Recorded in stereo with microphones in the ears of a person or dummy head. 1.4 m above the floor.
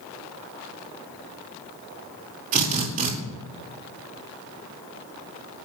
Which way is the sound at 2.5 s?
45° right (ahead or behind).